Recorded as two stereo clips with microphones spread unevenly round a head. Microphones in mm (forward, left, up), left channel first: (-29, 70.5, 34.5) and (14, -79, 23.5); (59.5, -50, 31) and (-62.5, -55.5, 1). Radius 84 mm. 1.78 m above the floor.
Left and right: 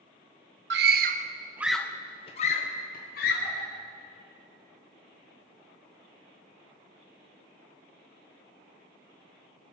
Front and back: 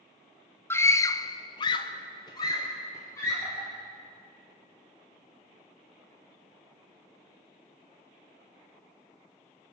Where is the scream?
60° right, 0.9 m; by 3.7 s 75° left, 1.8 m.